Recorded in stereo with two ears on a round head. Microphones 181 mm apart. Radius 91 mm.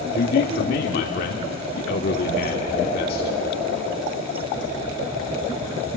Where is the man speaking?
50° left (ahead or behind), 1.5 m.